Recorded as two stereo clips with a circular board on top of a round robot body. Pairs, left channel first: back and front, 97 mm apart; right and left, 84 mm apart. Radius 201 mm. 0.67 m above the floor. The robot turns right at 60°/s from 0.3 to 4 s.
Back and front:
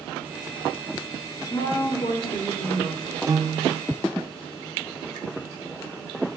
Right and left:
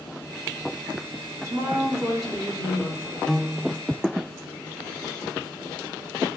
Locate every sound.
1.4 s a woman speaking: 130° left, 3.5 m; by 3.2 s 125° right, 3.5 m
3.3 s a piano: 15° right, 0.7 m; by 3.8 s 15° left, 0.7 m